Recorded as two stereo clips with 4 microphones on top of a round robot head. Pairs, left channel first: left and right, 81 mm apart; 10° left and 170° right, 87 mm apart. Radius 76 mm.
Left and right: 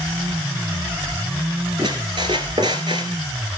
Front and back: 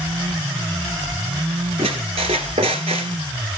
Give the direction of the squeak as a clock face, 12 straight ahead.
5 o'clock.